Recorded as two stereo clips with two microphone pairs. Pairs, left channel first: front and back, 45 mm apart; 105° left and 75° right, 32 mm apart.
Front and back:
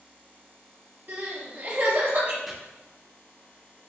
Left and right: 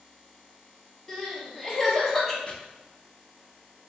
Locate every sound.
1.1 s crying: 175° right, 0.9 m
2.5 s chopping: 85° left, 0.5 m